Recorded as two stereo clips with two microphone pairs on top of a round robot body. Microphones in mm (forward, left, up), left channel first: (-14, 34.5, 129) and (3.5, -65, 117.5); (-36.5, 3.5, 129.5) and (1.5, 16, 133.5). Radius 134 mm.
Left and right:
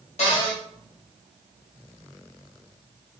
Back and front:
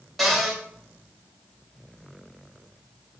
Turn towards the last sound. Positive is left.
turn(degrees=110)